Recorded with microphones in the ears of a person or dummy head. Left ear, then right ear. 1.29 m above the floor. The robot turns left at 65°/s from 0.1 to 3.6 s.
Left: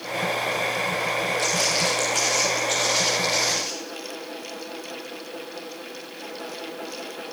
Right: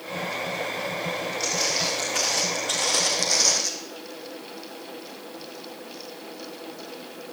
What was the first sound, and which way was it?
Footsteps, 55° left (ahead or behind).